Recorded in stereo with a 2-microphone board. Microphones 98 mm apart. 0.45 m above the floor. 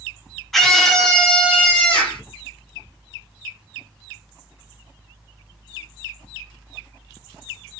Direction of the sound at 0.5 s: 5° left (ahead or behind).